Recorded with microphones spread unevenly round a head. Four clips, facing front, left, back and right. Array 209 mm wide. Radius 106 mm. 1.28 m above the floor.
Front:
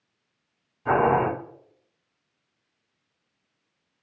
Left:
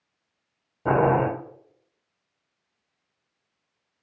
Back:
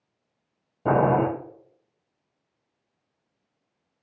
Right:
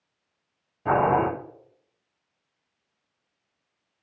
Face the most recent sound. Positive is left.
turn(degrees=160)